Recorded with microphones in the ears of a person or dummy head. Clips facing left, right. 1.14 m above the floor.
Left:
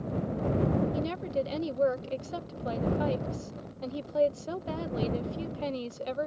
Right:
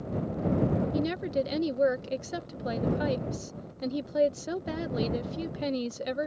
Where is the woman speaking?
20° right (ahead or behind).